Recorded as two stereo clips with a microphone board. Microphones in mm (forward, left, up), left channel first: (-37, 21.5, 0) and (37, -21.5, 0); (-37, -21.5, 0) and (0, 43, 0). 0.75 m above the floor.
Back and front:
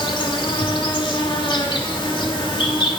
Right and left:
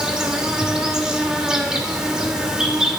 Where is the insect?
140° left, 1.9 m.